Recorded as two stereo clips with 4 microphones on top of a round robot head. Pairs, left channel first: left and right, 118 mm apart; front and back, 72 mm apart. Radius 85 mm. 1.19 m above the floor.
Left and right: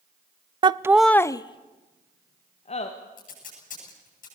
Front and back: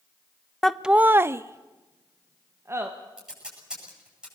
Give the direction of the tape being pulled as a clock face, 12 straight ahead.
9 o'clock.